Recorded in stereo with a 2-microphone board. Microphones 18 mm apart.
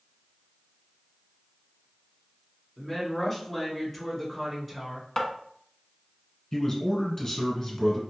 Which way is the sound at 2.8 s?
20° left (ahead or behind).